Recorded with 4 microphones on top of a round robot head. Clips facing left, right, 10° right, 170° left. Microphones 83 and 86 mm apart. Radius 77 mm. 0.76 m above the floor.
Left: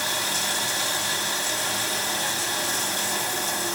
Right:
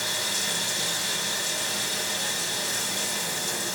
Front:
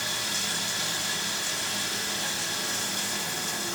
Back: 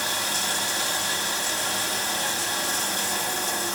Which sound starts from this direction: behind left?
Running water, at 0.0 s.